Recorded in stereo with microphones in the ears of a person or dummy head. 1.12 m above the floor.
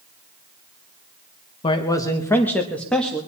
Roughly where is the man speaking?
Left.